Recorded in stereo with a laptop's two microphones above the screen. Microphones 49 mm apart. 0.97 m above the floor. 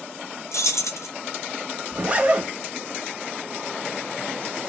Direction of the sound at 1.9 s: 30° right (ahead or behind).